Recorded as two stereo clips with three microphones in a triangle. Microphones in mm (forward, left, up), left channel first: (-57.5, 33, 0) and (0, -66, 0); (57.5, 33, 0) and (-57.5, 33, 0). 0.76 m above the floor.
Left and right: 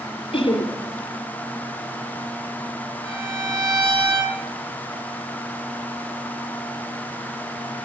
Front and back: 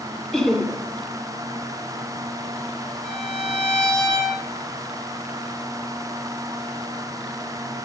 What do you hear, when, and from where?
0.3 s laughter: 85° left, 2.5 m
3.0 s a violin: 40° left, 7 m